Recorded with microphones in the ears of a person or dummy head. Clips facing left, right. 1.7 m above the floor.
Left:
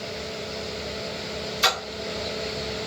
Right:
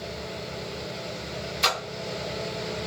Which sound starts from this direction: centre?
A splash, at 1.6 s.